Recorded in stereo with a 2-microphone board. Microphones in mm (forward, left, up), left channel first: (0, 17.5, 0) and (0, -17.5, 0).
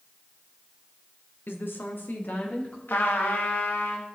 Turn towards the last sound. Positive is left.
turn(degrees=80)